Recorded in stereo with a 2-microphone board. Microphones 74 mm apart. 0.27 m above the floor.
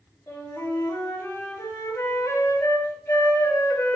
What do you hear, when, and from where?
0.3 s a flute: 50° left (ahead or behind), 4.5 m